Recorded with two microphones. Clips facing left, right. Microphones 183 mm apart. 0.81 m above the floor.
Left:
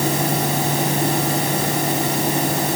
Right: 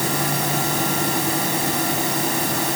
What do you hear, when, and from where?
Only background noise.